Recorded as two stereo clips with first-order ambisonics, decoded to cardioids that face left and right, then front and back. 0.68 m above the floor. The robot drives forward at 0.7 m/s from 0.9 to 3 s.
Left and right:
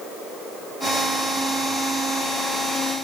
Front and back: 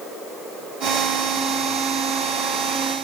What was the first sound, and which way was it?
Only background noise.